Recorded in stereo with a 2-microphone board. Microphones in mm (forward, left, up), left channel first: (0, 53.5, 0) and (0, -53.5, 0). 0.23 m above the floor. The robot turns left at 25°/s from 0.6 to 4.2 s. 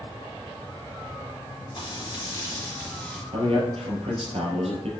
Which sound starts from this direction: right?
A man speaking, at 3.3 s.